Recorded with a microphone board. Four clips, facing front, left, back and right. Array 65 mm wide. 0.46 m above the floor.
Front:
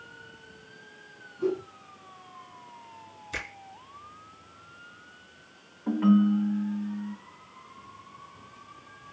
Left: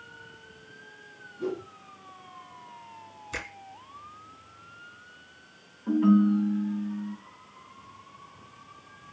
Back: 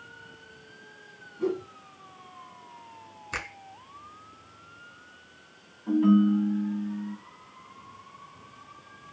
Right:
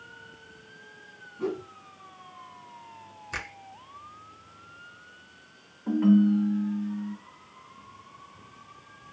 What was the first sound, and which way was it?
A whoosh, 100° right.